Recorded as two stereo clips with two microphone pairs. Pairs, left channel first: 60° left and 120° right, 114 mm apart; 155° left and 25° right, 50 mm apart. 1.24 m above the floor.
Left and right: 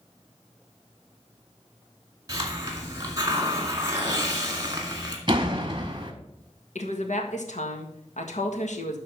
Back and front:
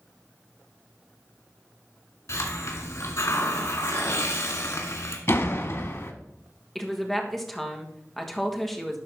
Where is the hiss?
Straight behind, 1.9 m.